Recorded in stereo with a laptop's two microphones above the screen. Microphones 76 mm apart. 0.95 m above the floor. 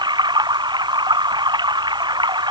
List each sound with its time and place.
0.0 s running water: 70° right (ahead or behind)